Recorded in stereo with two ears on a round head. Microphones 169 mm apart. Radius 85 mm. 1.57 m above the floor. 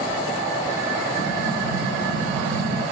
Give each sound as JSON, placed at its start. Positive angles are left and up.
{"t": 1.2, "sound": "an explosion", "side_deg": -80, "distance_m": 4.0}